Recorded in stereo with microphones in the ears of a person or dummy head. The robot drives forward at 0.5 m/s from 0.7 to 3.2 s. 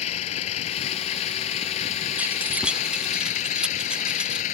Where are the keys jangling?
10° right (ahead or behind); by 4.5 s 5° right (ahead or behind).